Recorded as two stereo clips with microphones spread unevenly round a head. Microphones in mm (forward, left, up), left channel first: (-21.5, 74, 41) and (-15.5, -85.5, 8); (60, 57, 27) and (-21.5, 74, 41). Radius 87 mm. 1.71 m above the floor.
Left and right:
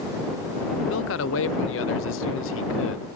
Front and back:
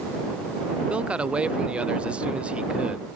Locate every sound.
0.9 s a man speaking: 90° left